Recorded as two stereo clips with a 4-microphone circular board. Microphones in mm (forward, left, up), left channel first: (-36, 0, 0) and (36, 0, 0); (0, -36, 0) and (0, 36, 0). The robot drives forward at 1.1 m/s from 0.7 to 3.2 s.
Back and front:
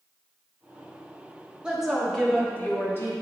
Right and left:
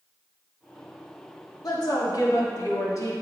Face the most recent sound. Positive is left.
turn(degrees=-130)